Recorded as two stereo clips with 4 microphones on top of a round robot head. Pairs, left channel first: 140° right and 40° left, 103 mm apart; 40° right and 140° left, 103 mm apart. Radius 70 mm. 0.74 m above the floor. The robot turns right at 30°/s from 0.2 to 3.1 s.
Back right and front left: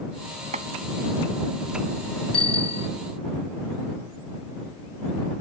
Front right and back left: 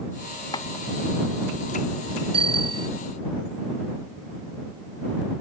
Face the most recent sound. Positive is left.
turn(degrees=-160)